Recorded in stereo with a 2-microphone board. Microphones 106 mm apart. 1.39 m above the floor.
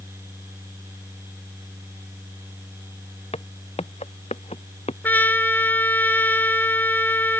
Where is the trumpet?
15° left (ahead or behind).